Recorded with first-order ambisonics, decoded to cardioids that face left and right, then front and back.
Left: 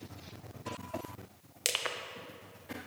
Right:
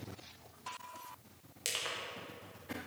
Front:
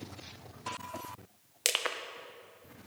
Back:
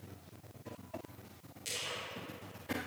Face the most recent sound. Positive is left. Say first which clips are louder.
# left 4 dB, front 8 dB
turn(degrees=25)